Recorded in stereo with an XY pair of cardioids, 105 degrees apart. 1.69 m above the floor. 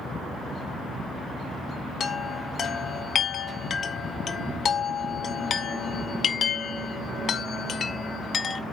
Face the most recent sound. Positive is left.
turn(degrees=50)